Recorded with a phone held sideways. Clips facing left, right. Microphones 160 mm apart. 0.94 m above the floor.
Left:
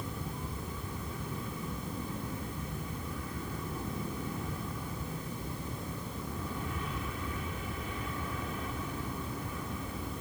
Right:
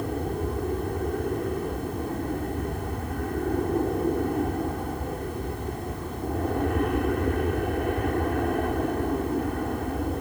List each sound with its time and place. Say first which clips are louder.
0.0 s an aircraft: right 12 dB; 65° right (ahead or behind)